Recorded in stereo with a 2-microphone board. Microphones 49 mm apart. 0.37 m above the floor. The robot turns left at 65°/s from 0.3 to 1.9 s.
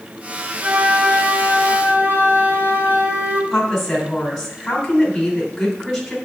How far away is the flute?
About 1.3 m.